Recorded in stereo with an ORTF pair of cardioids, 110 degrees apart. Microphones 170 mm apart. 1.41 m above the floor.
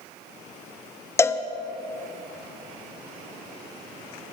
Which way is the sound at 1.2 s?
15° left.